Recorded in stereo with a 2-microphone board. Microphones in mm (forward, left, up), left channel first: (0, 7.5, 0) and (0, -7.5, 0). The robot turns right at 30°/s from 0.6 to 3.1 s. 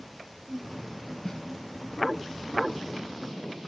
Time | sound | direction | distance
1.2 | a snare drum | 35° left (ahead or behind) | 2.5 m